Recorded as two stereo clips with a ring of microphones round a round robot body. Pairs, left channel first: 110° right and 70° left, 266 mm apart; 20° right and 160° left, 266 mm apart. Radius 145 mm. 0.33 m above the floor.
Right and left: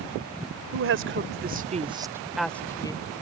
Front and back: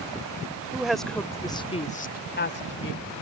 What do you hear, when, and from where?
0.7 s a woman speaking: 75° left; by 3.0 s 45° right